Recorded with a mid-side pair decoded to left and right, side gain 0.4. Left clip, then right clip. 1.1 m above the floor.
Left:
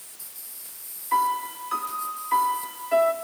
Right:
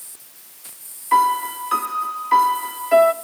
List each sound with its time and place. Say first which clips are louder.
1.1 s a piano: right 7 dB; 60° right, 1.5 m